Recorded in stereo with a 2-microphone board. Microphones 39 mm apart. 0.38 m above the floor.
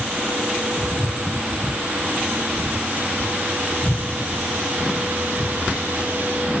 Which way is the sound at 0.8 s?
30° right (ahead or behind).